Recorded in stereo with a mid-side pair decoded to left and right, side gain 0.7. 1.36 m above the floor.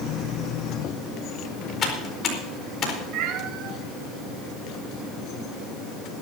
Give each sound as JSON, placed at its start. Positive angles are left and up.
{"t": 1.8, "sound": "typing on a keyboard", "azimuth_deg": 40, "distance_m": 4.0}
{"t": 3.1, "sound": "a cat meowing", "azimuth_deg": -55, "distance_m": 3.0}